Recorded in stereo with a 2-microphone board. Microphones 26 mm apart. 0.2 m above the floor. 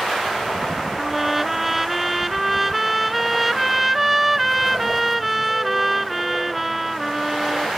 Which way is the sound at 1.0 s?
5° right (ahead or behind).